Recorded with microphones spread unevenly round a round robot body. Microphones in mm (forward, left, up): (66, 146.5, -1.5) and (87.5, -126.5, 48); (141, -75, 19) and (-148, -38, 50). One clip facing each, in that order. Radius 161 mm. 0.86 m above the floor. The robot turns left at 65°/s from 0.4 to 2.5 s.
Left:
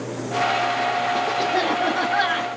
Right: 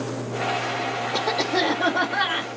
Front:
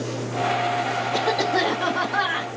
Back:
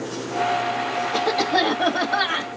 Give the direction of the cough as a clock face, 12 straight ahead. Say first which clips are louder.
Right 2 dB, back 1 dB; 4 o'clock.